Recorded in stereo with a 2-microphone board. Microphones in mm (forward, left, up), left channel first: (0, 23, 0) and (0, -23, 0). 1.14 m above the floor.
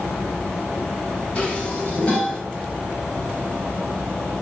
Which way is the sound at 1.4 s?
25° left (ahead or behind).